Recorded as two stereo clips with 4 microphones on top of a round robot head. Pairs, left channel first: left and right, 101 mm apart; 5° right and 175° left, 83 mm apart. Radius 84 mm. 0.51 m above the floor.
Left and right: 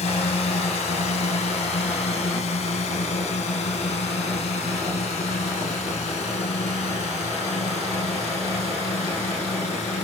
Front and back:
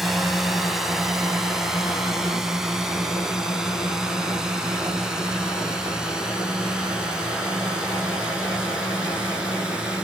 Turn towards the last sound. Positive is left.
turn(degrees=95)